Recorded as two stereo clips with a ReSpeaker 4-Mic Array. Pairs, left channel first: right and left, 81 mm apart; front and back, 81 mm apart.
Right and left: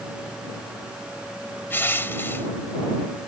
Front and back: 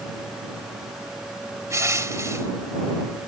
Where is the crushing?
145° right.